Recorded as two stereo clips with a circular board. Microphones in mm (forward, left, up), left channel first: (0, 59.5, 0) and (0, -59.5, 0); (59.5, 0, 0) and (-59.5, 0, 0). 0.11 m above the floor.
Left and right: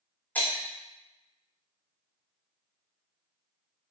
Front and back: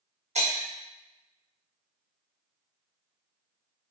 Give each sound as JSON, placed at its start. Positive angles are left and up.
{"t": 0.3, "sound": "breaking glass", "azimuth_deg": 165, "distance_m": 1.2}